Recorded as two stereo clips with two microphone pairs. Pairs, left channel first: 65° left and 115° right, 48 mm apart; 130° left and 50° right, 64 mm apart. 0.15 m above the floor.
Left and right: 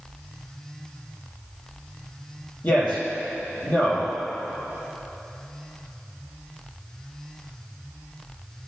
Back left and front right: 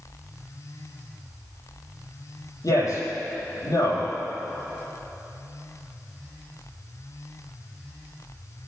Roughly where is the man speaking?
Left.